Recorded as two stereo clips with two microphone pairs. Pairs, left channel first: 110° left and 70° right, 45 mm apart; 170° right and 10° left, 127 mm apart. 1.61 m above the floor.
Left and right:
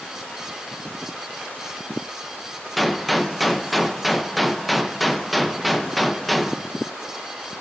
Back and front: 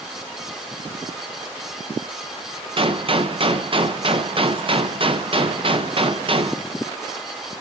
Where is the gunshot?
25° left, 0.6 m.